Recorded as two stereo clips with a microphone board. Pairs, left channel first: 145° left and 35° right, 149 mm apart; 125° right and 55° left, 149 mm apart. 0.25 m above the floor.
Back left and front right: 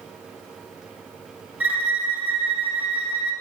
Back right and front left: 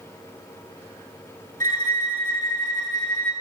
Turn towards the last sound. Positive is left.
turn(degrees=45)